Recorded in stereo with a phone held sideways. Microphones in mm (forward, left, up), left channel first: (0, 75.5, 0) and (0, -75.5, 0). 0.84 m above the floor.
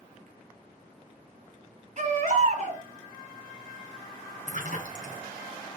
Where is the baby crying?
55° right (ahead or behind), 3.5 m.